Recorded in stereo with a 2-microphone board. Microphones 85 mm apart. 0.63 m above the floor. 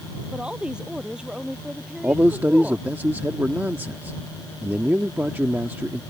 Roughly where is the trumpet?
No trumpet in this recording.